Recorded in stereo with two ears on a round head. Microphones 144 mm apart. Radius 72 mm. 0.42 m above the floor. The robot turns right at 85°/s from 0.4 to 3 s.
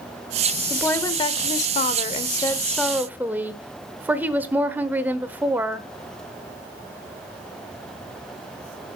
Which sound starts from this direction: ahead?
A woman speaking, at 0.7 s.